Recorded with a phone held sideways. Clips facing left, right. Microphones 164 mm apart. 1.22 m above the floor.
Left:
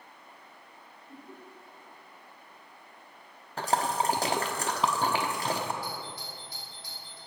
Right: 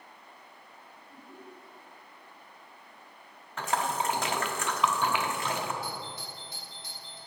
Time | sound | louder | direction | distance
1.1 | laughter | left 3 dB | 80° left | 3.5 m
3.6 | a splash | left 2 dB | 35° left (ahead or behind) | 0.9 m
5.8 | a doorbell | even | 20° right (ahead or behind) | 4 m